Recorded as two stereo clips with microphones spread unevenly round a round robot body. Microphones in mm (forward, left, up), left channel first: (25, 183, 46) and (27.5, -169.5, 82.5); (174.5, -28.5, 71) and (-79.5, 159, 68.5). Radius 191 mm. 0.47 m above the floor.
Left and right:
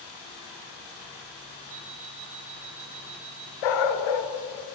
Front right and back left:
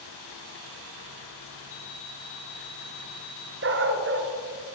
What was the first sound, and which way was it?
An alarm clock, 75° right.